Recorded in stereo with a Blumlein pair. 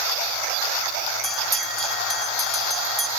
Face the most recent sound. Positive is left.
turn(degrees=-10)